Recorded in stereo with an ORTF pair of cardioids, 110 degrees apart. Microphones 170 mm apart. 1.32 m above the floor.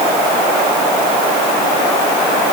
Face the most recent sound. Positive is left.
No sound to turn to.